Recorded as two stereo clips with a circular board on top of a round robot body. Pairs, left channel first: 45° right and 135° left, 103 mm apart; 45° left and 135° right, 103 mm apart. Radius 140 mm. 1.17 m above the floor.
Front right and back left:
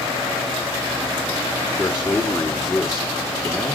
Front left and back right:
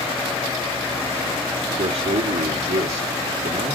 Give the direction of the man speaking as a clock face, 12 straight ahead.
4 o'clock.